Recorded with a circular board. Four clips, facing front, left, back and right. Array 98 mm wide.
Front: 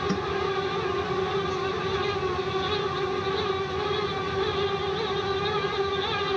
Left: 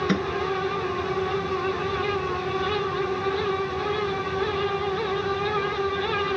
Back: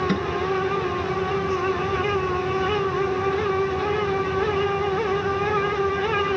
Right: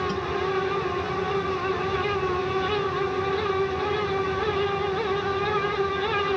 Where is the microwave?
115° left.